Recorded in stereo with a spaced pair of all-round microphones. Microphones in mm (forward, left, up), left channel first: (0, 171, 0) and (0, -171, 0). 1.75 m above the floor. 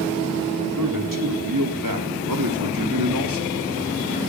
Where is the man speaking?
65° right (ahead or behind), 4 m; by 3.6 s 75° right (ahead or behind), 2.5 m.